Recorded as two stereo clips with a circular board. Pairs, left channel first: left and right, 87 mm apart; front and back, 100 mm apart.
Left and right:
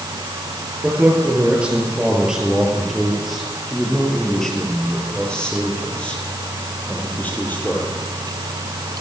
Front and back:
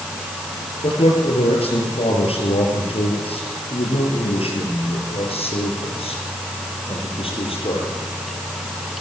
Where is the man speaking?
15° right, 6.5 m; by 8.0 s 20° left, 9 m.